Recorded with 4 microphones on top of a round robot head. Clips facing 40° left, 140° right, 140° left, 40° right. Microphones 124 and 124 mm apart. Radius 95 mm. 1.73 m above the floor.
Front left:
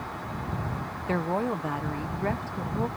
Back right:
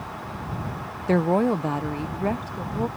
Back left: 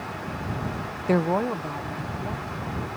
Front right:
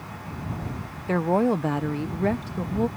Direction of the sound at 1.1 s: Straight behind.